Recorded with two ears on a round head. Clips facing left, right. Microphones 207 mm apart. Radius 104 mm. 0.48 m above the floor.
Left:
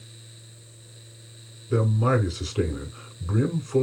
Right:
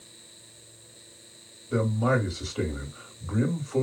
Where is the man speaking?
35° left (ahead or behind), 1.7 m.